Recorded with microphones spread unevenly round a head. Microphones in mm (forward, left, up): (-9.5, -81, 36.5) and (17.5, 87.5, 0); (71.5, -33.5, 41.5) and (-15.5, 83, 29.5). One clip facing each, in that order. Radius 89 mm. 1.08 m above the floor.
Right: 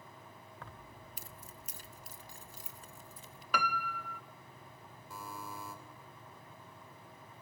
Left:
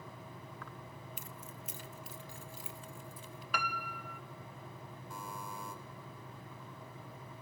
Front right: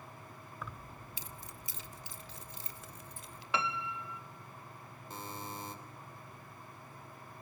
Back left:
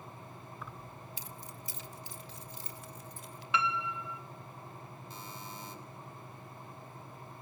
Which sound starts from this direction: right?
A piano, at 3.5 s.